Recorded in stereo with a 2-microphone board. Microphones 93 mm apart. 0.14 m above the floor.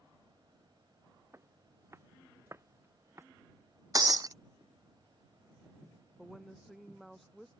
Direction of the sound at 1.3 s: 25° right (ahead or behind).